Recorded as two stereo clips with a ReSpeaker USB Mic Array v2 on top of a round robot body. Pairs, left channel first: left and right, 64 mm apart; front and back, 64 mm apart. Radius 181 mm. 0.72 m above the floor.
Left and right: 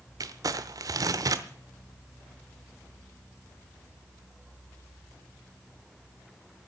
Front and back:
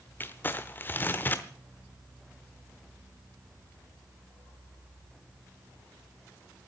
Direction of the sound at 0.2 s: 60° right.